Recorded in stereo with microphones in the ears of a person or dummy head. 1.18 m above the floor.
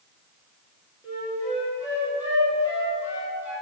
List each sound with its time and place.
1.0 s a flute: 10° right (ahead or behind), 1.1 m